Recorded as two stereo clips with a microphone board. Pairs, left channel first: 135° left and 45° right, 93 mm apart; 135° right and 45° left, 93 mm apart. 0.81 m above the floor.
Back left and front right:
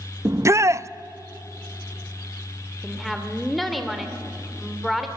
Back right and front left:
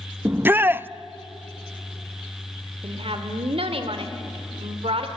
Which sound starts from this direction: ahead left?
A woman speaking, at 2.8 s.